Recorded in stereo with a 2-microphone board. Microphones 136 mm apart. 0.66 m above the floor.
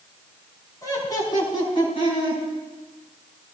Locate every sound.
0.8 s laughter: 25° left (ahead or behind), 5.5 m; by 2.4 s 45° left (ahead or behind), 7 m